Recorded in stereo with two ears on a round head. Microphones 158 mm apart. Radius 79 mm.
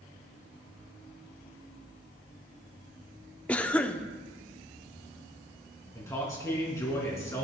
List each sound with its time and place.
3.5 s a cough: 10° left (ahead or behind), 0.7 m
6.0 s a man speaking: 20° left (ahead or behind), 3 m